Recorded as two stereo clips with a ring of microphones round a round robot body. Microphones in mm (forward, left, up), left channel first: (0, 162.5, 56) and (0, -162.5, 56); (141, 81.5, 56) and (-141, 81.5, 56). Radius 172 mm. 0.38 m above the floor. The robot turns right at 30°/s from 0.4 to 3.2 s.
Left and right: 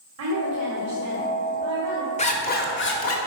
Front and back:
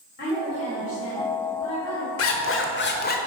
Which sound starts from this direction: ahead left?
A zipper, at 2.2 s.